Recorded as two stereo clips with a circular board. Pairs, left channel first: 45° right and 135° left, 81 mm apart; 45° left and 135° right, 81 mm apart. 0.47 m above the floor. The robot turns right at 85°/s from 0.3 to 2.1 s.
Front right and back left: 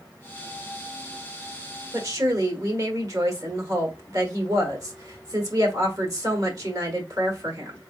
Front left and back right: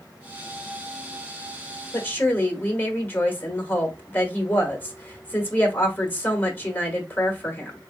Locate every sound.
1.9 s a woman speaking: 90° left, 1.4 m; by 7.8 s 105° left, 1.4 m